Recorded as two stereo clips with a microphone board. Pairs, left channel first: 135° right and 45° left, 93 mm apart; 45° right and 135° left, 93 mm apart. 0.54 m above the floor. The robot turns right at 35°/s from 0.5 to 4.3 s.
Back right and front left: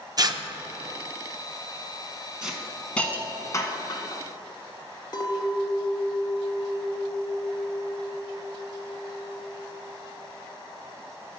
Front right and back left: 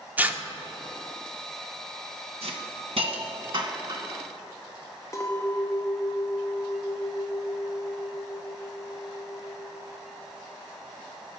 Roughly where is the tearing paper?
Left.